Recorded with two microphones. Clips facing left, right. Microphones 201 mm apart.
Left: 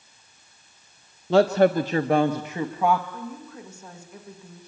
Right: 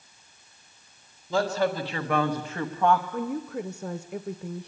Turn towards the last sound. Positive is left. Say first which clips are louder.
# right 7 dB
turn(degrees=-65)  # may be behind; listen again after turning